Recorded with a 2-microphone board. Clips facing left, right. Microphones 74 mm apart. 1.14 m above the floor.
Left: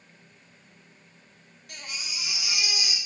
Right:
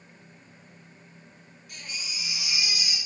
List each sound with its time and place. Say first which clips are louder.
1.7 s a baby crying: left 1 dB; 75° left (ahead or behind), 2 m